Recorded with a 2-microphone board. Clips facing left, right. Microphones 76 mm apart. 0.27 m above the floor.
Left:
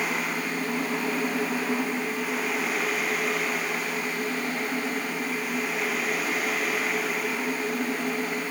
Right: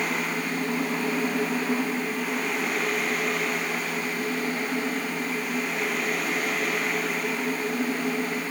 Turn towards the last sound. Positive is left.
No sound to turn to.